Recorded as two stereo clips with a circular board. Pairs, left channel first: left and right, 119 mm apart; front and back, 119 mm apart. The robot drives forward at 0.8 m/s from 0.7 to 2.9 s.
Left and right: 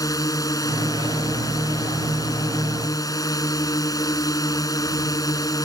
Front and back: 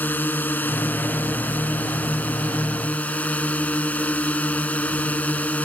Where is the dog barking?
I don't hear a dog barking.